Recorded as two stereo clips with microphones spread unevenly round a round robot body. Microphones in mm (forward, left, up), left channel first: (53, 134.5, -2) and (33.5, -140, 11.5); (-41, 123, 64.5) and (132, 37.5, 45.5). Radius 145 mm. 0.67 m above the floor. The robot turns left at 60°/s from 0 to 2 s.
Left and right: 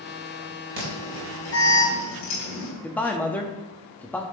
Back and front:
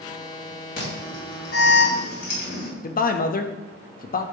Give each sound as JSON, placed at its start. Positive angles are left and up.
{"t": 0.8, "sound": "an alarm", "azimuth_deg": -150, "distance_m": 4.0}
{"t": 2.8, "sound": "a man speaking", "azimuth_deg": 165, "distance_m": 0.8}